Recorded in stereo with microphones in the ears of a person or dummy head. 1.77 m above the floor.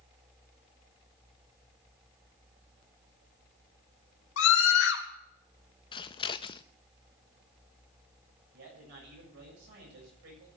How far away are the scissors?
About 0.5 m.